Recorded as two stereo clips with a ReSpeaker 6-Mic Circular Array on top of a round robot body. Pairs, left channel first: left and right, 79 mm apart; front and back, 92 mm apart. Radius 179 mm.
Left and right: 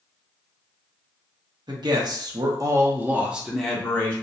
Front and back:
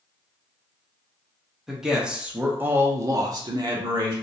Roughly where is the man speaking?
Right.